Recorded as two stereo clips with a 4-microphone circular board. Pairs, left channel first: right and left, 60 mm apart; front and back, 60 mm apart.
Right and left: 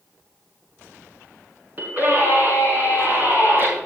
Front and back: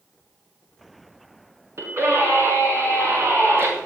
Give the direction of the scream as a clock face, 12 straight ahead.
7 o'clock.